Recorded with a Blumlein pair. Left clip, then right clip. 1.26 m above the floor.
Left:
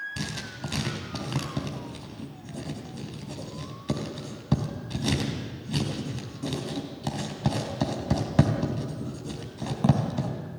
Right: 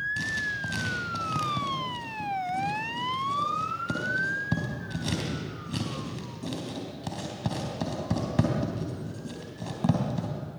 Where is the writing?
10° left, 3.5 m.